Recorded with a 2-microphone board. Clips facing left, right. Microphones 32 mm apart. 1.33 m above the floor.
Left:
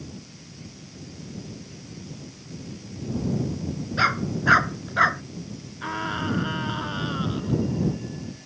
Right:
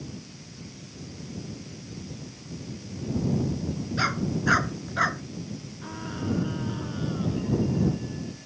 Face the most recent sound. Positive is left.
turn(degrees=55)  # may be behind; listen again after turning